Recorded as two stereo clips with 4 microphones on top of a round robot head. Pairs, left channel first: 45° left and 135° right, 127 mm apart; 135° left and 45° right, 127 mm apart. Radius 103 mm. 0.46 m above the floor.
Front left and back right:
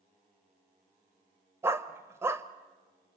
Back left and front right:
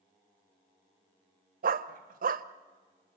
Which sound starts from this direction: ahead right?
A dog barking, at 1.6 s.